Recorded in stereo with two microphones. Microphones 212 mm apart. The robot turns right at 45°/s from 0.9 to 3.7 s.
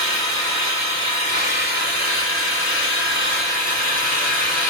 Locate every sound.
0.0 s an engine running: 15° left, 1.5 m; by 4.7 s 140° left, 1.5 m